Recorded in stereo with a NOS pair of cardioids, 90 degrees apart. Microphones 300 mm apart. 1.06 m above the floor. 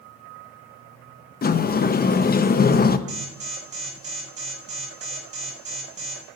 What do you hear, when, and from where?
1.4 s a sliding door: 30° left, 0.8 m
3.1 s an alarm: 25° right, 5.5 m